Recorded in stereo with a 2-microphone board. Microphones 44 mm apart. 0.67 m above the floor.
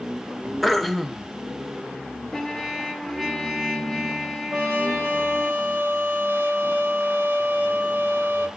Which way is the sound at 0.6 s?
Centre (ahead or behind).